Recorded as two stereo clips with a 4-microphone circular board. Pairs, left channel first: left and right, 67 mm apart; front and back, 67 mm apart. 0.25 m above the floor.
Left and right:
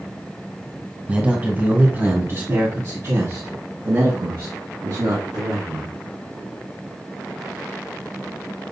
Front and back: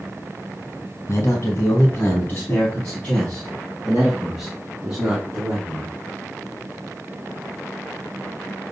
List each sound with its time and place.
1.1 s a man speaking: 25° right, 1.6 m; by 5.9 s 105° right, 3 m